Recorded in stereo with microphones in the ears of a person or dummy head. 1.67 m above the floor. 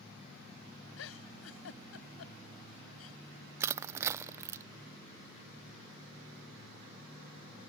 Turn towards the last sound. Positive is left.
turn(degrees=-20)  # may be behind; listen again after turning